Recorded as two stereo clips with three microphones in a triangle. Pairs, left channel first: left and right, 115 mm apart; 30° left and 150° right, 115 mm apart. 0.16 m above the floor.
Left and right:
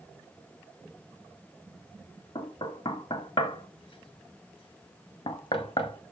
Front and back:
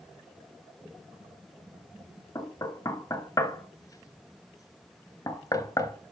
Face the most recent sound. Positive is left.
turn(degrees=70)